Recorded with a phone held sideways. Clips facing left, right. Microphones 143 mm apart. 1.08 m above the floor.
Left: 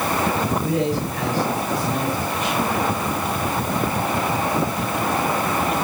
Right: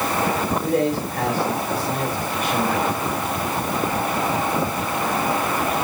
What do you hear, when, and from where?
0.6 s a man speaking: 40° right (ahead or behind), 5.5 m